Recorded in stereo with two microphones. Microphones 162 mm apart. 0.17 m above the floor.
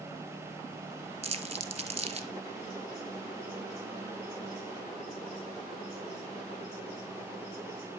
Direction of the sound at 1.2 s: 45° right (ahead or behind).